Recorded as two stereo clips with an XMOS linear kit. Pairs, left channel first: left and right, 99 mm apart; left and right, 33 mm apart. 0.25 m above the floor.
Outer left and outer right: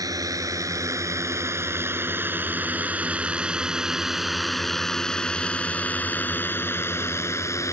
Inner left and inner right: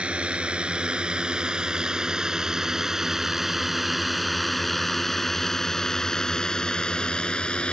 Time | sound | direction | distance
0.0 | a drone | 40° right (ahead or behind) | ?